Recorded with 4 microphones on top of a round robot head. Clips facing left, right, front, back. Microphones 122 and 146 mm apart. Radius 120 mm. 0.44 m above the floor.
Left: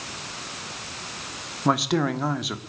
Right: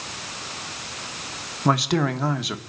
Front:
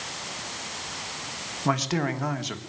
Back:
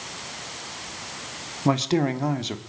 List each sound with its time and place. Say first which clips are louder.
1.6 s a man speaking: right 1 dB, back 5 dB; straight behind, 1.4 m